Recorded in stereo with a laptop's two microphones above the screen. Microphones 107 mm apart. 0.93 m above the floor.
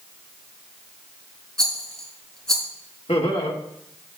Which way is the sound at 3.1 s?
55° left (ahead or behind).